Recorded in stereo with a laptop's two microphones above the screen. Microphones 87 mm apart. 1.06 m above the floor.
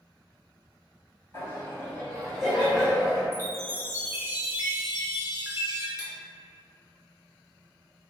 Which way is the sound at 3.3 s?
30° right (ahead or behind).